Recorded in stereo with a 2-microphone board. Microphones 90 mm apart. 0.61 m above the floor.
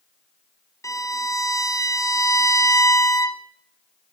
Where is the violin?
35° left (ahead or behind), 0.9 m.